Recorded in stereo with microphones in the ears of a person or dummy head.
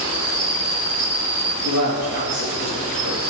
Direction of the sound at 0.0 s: 40° right (ahead or behind).